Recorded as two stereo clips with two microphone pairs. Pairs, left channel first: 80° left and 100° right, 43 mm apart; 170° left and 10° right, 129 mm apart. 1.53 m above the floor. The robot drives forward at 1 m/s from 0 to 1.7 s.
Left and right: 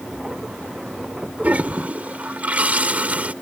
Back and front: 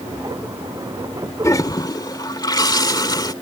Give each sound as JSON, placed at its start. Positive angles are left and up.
{"t": 1.4, "sound": "a toilet flushing", "azimuth_deg": -130}